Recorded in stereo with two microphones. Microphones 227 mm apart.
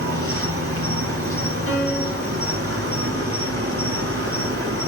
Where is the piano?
20° right (ahead or behind), 1.2 m.